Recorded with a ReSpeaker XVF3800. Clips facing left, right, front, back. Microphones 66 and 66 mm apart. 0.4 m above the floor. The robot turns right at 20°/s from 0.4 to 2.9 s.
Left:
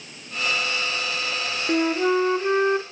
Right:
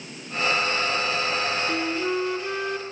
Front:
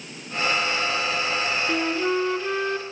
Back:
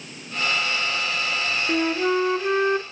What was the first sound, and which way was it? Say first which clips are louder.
A flute: left 5 dB, back 4 dB; 100° left.